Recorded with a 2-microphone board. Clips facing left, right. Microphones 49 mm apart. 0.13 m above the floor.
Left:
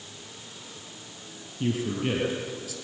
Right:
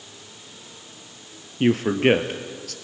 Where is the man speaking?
60° right (ahead or behind), 2 m.